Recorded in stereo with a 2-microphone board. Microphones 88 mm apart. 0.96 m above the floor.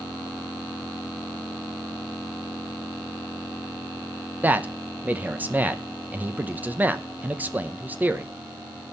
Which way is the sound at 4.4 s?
20° right (ahead or behind).